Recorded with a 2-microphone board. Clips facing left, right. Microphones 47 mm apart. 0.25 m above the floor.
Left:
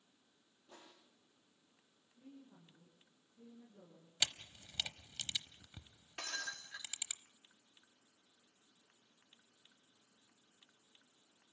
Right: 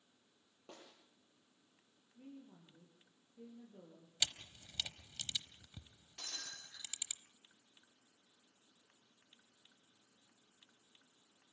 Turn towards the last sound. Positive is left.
turn(degrees=60)  # may be behind; listen again after turning